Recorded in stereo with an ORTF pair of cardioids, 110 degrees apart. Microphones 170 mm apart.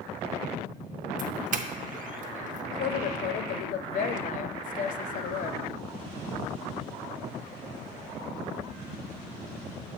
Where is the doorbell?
50° right, 0.7 m.